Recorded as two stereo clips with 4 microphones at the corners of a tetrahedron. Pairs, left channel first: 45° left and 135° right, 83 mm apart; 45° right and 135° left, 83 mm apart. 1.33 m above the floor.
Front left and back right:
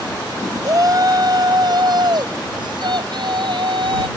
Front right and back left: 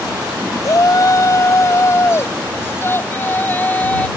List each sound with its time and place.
0.6 s a shout: 90° right; by 4.1 s 115° right